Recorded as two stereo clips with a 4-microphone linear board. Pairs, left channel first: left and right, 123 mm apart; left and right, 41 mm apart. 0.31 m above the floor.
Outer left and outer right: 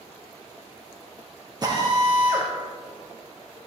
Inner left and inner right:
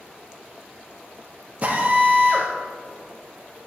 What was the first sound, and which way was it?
A drill, 35° right (ahead or behind).